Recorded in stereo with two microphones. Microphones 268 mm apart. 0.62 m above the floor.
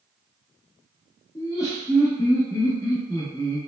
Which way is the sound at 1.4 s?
15° left (ahead or behind).